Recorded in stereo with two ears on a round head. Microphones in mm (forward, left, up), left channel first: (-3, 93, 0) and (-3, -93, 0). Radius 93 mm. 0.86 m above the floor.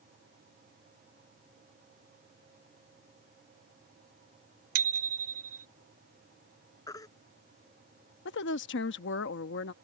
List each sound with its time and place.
4.8 s a bicycle bell: 80° right
6.9 s a baby crying: 15° left (ahead or behind)
8.2 s a woman speaking: 60° left (ahead or behind)